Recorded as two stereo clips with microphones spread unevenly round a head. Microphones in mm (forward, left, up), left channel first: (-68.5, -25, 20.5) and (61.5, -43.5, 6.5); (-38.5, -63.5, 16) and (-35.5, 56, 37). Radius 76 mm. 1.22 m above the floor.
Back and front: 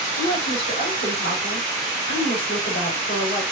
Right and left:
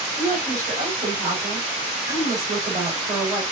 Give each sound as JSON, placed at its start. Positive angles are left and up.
{"t": 0.2, "sound": "a woman speaking", "azimuth_deg": 155, "distance_m": 3.5}